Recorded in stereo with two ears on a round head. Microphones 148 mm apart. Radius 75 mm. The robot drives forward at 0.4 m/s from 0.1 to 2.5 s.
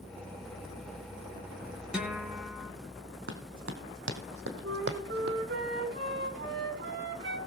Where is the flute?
75° right (ahead or behind), 4.5 m.